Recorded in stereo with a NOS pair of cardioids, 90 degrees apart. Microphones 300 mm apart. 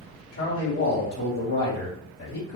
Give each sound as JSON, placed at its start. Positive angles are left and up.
{"t": 0.3, "sound": "a man speaking", "azimuth_deg": 55, "distance_m": 1.2}